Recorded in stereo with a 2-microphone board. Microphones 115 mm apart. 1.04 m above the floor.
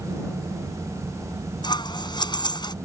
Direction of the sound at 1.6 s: 40° left (ahead or behind).